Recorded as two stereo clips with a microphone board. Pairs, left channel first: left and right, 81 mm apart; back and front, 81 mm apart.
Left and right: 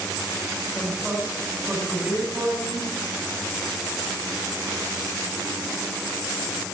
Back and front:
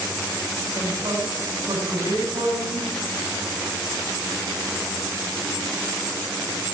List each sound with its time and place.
0.7 s a man speaking: 20° right, 5 m